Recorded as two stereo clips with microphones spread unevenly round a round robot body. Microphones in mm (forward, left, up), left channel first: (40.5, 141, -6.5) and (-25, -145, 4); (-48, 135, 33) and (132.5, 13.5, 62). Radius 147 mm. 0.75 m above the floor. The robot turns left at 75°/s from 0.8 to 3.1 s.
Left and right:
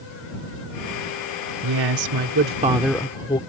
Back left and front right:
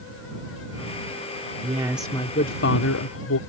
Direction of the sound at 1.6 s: 100° right.